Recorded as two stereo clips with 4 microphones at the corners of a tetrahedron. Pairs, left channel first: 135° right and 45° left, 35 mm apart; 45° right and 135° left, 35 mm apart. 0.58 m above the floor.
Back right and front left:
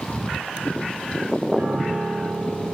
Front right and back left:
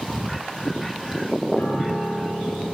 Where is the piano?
20° right, 1.6 m.